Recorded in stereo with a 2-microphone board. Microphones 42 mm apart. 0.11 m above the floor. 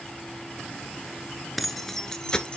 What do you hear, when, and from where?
1.6 s keys jangling: centre (ahead or behind), 1.2 m; by 2.6 s 20° left (ahead or behind), 1.5 m